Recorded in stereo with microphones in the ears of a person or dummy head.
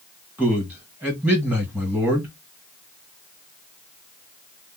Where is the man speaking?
10° right (ahead or behind), 1.6 m.